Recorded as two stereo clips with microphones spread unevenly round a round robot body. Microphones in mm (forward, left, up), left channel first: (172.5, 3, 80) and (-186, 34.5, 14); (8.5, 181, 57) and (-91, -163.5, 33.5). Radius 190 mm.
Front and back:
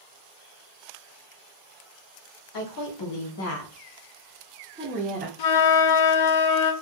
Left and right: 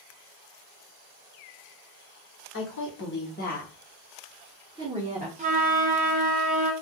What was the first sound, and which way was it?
A woman speaking, 20° left.